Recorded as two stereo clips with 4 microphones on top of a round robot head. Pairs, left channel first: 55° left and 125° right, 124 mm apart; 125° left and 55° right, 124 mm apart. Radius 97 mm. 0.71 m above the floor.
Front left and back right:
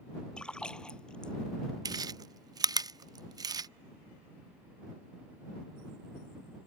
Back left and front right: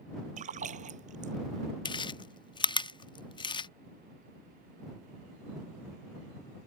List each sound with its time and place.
0.4 s a splash: 25° right
1.9 s chewing: 175° left